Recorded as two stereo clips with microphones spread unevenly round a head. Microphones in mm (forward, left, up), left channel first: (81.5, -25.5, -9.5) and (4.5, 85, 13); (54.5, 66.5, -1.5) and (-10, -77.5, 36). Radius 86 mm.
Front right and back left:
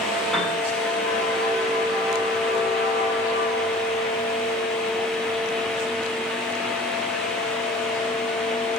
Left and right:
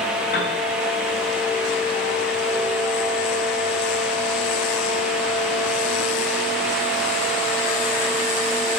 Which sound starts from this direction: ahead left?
A piano, at 0.3 s.